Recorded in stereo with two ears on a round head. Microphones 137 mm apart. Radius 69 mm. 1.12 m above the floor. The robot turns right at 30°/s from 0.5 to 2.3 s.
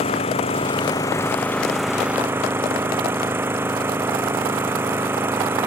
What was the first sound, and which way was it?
An engine running, 140° left.